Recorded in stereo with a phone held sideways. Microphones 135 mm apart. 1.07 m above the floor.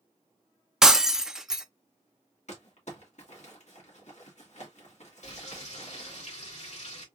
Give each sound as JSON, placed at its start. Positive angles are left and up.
{"t": 0.8, "sound": "breaking glass", "side_deg": -5, "distance_m": 0.5}
{"t": 2.5, "sound": "crumpling", "side_deg": 65, "distance_m": 1.9}
{"t": 5.2, "sound": "frying", "side_deg": 65, "distance_m": 2.5}